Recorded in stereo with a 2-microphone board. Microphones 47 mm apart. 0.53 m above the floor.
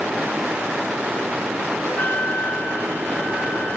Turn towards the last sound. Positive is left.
turn(degrees=40)  # may be behind; listen again after turning